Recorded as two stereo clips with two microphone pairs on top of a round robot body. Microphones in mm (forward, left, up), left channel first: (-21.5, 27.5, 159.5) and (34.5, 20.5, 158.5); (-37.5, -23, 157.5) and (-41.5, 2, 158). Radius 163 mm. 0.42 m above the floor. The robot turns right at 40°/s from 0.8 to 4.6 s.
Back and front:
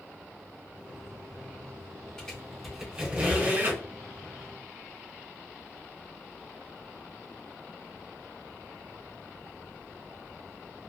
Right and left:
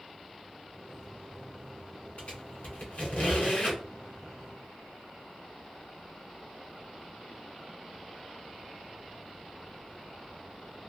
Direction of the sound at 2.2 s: 110° right.